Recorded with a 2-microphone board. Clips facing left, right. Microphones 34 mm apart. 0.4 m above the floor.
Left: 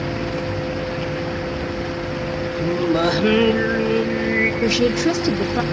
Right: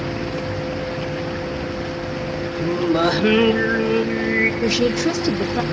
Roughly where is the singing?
Centre.